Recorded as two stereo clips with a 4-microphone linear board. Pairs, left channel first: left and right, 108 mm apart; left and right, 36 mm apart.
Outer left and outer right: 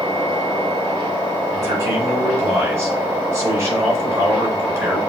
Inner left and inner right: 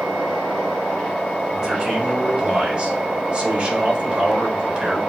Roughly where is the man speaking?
Right.